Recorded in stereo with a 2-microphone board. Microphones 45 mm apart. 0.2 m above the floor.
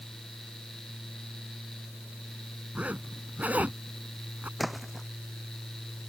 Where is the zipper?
35° right (ahead or behind).